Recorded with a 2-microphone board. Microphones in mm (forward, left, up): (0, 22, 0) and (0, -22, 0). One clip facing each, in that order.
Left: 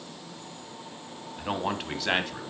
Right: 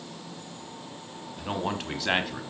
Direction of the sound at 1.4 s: 15° left (ahead or behind).